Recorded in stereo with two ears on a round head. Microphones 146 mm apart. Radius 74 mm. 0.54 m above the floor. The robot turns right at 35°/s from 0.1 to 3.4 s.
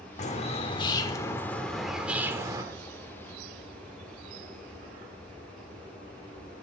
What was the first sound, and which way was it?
A bird, 120° left.